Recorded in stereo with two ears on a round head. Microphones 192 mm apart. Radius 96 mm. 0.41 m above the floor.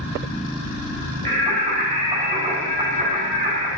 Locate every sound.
1.2 s singing: 35° right (ahead or behind), 4 m